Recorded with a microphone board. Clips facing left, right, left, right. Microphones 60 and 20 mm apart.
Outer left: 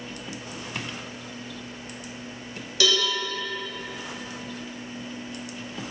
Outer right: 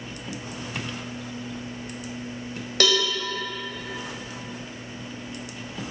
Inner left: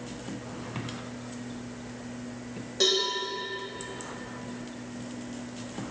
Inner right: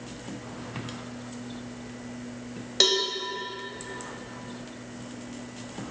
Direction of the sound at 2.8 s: 60° right (ahead or behind).